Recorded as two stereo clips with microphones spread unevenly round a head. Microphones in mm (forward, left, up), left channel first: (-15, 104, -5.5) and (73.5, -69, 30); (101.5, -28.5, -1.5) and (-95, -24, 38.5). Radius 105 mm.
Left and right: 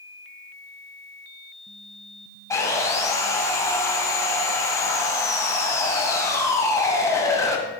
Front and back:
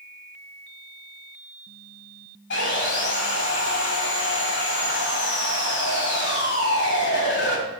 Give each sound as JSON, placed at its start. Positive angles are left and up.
{"t": 2.5, "sound": "sawing", "azimuth_deg": 40, "distance_m": 2.5}